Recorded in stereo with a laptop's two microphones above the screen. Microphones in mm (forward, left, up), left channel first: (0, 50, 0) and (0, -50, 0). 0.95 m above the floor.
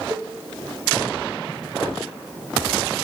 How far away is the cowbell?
About 2.5 m.